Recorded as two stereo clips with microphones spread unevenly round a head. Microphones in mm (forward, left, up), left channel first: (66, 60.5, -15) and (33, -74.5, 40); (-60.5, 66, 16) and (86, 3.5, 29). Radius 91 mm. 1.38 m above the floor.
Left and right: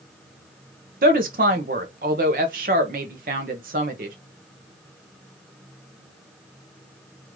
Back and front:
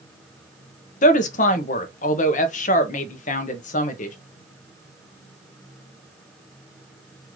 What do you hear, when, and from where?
1.0 s a woman speaking: 155° right, 0.8 m